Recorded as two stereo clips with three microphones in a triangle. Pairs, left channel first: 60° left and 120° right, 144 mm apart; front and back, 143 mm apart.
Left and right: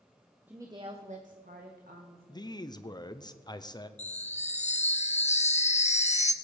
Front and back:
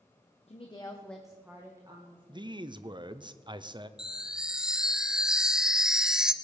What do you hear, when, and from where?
0.5 s a woman speaking: 40° right, 1.1 m; by 2.5 s 125° right, 2 m
2.3 s a man speaking: 120° left, 0.7 m
4.0 s a chime: 95° left, 0.6 m